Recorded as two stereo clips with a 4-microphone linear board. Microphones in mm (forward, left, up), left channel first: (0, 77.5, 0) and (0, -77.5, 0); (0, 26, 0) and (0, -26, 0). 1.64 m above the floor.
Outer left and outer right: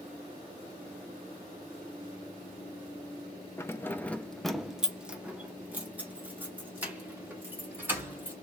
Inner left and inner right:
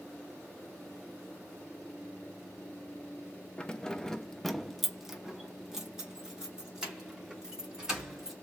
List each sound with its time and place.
3.6 s keys jangling: 15° left (ahead or behind), 0.6 m; by 8.3 s 10° right (ahead or behind), 3 m